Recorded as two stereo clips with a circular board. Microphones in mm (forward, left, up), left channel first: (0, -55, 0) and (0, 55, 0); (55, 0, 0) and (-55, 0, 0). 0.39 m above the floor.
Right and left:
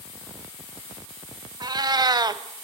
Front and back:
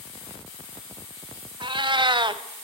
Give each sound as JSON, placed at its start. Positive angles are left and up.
{"t": 1.6, "sound": "a cat meowing", "azimuth_deg": 140, "distance_m": 0.9}